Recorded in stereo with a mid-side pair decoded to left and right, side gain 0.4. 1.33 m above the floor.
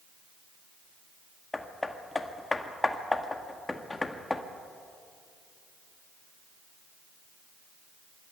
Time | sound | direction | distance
1.5 | hammering | 20° left | 1.7 m